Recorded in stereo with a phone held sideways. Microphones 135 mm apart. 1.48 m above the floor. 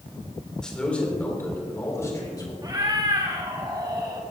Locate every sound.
0.6 s a man speaking: 5° left (ahead or behind), 3 m; by 2.5 s 30° left (ahead or behind), 2.5 m
2.6 s a cat meowing: 30° right (ahead or behind), 1.5 m